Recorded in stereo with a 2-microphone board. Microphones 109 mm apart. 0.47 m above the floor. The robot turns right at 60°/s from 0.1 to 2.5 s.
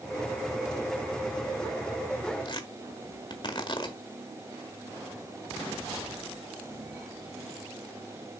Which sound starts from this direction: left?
Tearing paper, at 2.5 s.